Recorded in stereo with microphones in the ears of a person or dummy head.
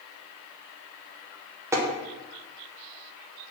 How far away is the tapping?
About 0.6 m.